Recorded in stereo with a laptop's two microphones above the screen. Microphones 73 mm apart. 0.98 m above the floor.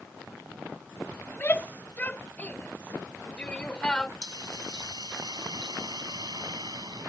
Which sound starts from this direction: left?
A shout, at 1.3 s.